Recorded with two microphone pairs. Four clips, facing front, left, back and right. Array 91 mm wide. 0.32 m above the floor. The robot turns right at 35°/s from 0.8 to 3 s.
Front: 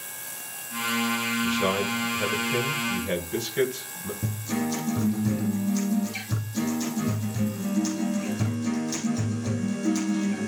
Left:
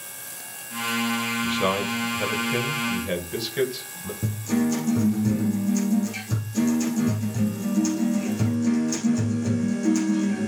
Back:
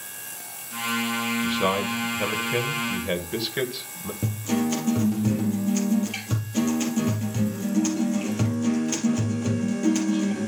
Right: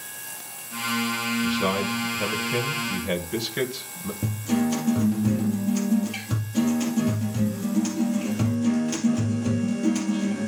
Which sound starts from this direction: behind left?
A man speaking, at 1.4 s.